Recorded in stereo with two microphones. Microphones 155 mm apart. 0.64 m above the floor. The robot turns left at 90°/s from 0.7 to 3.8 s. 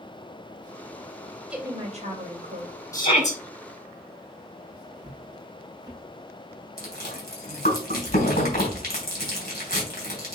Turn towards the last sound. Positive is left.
turn(degrees=80)